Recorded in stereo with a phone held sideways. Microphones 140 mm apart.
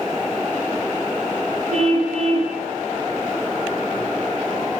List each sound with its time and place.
1.7 s a car horn: 55° right (ahead or behind), 7.5 m